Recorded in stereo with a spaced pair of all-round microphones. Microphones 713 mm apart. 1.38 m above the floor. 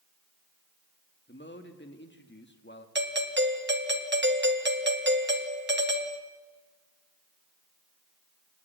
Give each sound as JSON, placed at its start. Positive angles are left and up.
{"t": 1.3, "sound": "a man speaking", "side_deg": 15, "distance_m": 2.0}
{"t": 3.0, "sound": "a doorbell", "side_deg": -15, "distance_m": 1.9}